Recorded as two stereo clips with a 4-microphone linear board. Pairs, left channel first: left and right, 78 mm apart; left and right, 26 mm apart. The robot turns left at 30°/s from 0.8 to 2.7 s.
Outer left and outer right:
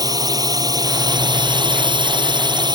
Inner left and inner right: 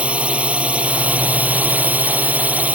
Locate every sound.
0.0 s a drone: 55° right; by 2.8 s 110° right